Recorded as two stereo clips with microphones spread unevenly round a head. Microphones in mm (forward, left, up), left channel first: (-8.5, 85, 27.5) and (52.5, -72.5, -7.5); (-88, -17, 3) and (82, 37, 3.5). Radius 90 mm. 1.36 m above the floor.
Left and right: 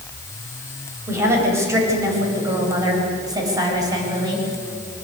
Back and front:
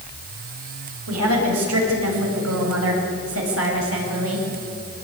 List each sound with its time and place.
1.1 s a woman speaking: 5° left, 7.5 m; by 4.5 s straight ahead, 8.5 m